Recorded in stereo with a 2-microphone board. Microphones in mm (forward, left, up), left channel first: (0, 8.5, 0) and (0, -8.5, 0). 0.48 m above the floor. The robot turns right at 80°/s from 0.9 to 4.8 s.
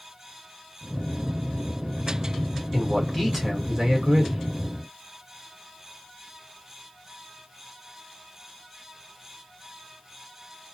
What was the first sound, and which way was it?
A man speaking, 150° left.